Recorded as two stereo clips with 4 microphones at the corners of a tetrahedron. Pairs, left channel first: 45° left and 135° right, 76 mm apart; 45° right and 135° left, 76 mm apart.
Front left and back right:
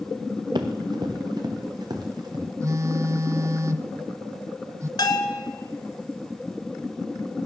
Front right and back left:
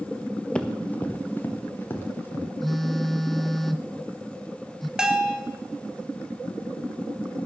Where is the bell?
55° left, 1.5 m.